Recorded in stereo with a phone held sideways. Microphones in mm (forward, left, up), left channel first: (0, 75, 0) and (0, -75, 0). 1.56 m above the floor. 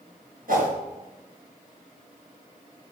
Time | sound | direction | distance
0.5 | a whoosh | 70° right (ahead or behind) | 4 m